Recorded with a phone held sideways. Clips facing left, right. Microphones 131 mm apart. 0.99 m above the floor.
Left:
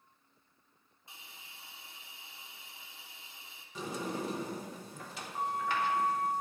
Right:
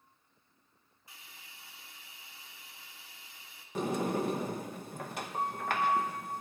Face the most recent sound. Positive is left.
turn(degrees=-60)  # may be behind; listen again after turning